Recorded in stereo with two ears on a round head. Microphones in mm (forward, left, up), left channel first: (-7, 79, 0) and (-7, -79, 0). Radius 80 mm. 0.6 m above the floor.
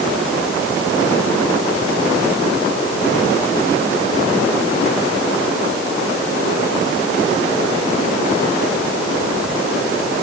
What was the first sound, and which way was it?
Only background noise.